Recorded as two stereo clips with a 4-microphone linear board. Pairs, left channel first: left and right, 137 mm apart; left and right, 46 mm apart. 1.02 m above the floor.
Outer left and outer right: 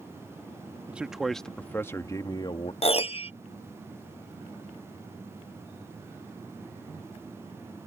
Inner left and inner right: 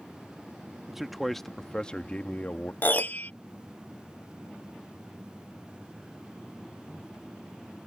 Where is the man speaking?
10° right (ahead or behind); by 2.7 s 40° left (ahead or behind).